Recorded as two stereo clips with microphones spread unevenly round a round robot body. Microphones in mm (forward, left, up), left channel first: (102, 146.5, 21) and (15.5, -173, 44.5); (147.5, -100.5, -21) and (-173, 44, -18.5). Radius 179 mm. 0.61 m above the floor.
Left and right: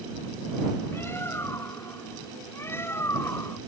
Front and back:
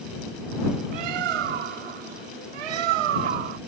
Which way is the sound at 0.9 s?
155° left.